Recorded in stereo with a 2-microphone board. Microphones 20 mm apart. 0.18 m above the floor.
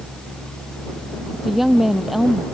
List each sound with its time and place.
1.3 s a woman speaking: 10° right (ahead or behind)